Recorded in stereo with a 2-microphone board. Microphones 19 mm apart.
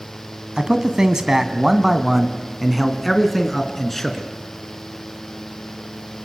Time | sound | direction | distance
0.6 | a man speaking | 40° right (ahead or behind) | 1.7 m